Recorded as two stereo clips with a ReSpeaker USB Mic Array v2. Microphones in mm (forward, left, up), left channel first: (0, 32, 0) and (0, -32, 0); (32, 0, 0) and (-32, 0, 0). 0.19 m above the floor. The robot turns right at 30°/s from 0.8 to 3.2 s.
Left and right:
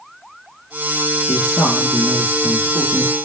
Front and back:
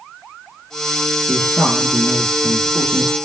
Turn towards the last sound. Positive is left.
turn(degrees=155)